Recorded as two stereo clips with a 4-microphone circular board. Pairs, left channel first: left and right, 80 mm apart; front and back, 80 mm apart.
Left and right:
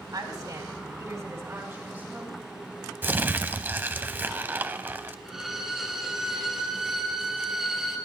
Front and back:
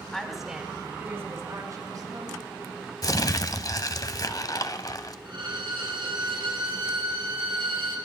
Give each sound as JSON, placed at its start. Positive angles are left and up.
{"t": 0.1, "sound": "a woman speaking", "azimuth_deg": -85, "distance_m": 2.5}
{"t": 3.0, "sound": "crumpling", "azimuth_deg": -25, "distance_m": 0.6}
{"t": 5.2, "sound": "a violin", "azimuth_deg": -175, "distance_m": 2.5}